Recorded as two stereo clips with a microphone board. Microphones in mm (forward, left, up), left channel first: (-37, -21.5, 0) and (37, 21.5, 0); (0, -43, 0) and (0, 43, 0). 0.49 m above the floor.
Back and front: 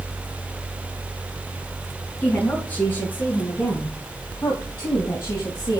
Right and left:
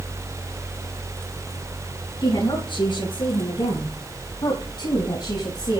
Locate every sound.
2.2 s a woman speaking: 80° right, 6 m; by 5.8 s 110° right, 3 m